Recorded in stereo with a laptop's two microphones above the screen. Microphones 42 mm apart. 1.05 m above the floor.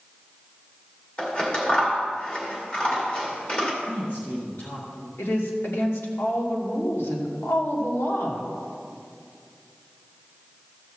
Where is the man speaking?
60° left (ahead or behind), 2 m.